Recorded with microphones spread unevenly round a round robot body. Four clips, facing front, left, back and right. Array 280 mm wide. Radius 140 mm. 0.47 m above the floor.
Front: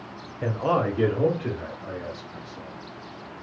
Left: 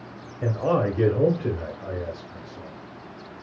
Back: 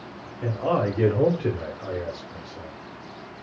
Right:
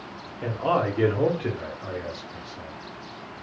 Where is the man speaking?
65° left, 0.8 m; by 2.8 s 165° right, 1.6 m.